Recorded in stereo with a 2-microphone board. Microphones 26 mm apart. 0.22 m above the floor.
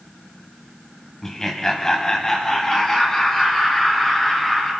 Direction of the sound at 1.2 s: 20° left (ahead or behind).